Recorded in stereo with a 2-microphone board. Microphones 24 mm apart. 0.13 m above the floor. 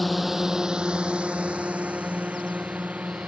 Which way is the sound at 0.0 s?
Centre (ahead or behind).